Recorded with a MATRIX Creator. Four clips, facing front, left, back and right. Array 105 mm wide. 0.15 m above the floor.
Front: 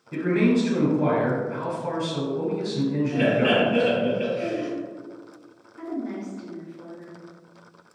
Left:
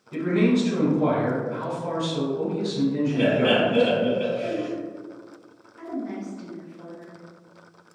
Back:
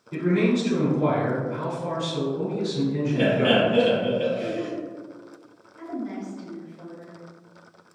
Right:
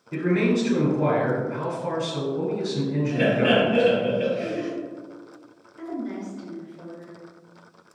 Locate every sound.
0.1 s a man speaking: 45° right, 1.2 m
3.1 s laughter: 20° right, 1.4 m
5.8 s a woman speaking: 60° left, 1.9 m